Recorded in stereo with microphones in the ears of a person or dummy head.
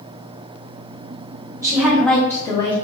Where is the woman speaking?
20° right (ahead or behind), 0.8 m; by 2.8 s 20° left (ahead or behind), 1.1 m.